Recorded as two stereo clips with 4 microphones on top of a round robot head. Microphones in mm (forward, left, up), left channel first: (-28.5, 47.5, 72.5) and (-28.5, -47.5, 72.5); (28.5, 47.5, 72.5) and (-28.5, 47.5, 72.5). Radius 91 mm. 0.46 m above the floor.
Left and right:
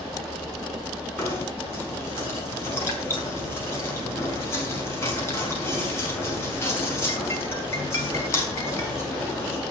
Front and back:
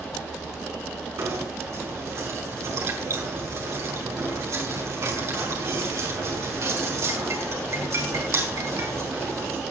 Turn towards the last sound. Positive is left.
turn(degrees=150)